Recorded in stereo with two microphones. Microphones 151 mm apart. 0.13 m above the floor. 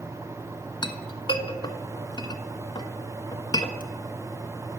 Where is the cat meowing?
No cat meowing in this recording.